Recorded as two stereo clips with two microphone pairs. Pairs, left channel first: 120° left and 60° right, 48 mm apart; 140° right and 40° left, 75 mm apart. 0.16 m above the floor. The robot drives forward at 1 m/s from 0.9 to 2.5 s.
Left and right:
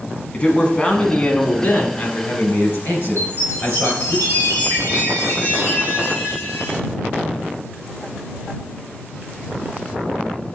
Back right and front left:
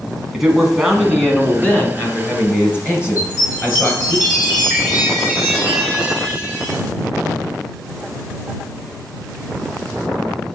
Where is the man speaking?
120° left, 1.2 m; by 4.2 s 170° left, 2 m.